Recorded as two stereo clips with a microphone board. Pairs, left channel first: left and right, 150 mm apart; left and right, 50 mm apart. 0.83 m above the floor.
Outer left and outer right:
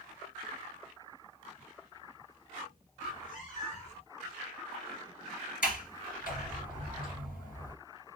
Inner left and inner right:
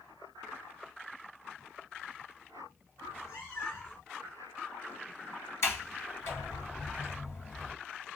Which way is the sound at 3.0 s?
70° left (ahead or behind).